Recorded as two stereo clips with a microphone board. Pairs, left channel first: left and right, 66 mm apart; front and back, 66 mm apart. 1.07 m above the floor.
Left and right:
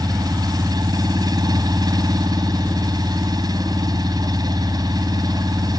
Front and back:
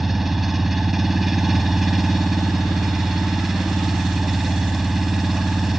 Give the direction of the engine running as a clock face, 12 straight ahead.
3 o'clock.